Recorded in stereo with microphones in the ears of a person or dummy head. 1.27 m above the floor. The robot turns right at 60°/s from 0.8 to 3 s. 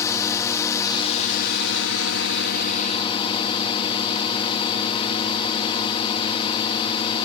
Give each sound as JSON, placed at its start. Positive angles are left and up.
{"t": 0.0, "sound": "a drone", "azimuth_deg": 15}